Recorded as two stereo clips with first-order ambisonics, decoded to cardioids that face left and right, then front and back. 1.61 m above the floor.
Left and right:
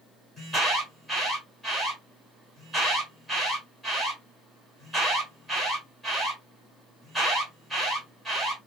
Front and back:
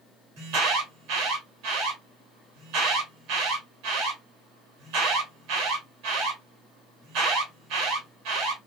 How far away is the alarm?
About 2 m.